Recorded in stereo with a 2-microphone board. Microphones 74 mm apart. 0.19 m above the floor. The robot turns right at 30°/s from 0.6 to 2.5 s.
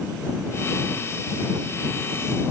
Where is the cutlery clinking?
No cutlery clinking in this recording.